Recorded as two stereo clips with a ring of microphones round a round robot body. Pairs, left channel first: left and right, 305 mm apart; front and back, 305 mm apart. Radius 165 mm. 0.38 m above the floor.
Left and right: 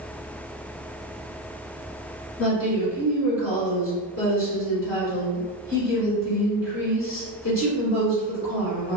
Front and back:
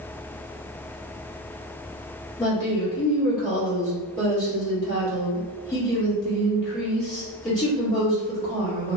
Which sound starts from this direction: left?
A woman speaking, at 2.4 s.